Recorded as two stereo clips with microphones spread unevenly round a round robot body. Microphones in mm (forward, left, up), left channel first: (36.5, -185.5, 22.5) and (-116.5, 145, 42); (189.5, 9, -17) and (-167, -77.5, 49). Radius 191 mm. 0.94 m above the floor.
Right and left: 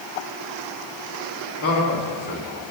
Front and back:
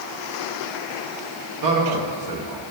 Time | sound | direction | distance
1.6 | a man speaking | 130° right | 1.9 m